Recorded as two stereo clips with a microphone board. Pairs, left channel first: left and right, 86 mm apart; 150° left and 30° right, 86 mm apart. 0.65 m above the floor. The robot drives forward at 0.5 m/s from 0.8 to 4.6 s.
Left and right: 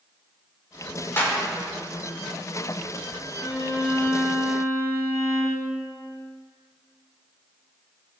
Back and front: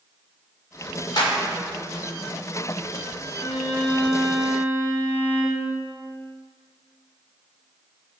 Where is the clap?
150° left, 1.8 m; by 1.4 s 155° left, 1.9 m.